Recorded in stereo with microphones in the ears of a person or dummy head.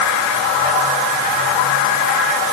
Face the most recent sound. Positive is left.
No sound to turn to.